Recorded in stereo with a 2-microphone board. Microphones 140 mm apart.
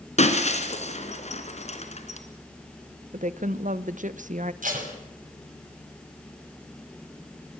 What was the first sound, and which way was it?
Breaking glass, 55° left (ahead or behind).